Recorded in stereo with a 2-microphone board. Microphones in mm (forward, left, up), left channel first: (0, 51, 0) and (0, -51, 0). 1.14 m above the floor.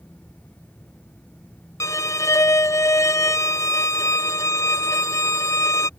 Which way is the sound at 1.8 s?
30° left (ahead or behind).